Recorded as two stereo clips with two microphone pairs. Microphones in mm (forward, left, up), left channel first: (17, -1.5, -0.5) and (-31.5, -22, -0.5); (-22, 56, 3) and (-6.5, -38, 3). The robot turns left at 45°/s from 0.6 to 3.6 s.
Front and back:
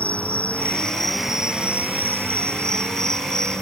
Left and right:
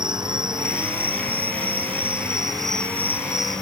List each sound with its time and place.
0.0 s an insect: 40° right; by 3.6 s 175° right